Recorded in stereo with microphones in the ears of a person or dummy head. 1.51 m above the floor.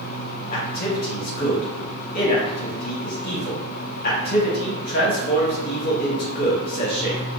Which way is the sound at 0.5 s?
50° left (ahead or behind).